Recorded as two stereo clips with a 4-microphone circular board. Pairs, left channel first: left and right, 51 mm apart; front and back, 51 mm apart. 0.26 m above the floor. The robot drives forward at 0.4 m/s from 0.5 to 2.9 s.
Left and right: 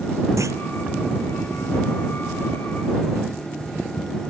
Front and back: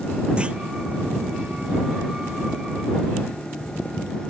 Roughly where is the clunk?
Right.